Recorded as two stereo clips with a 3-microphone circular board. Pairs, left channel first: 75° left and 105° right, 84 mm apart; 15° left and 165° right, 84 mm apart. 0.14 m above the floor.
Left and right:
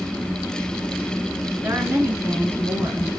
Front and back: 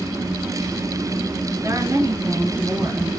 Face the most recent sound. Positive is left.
turn(degrees=-160)